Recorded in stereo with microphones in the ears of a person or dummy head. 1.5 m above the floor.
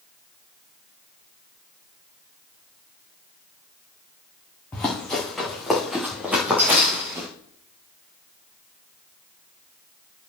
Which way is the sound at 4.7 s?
15° left (ahead or behind).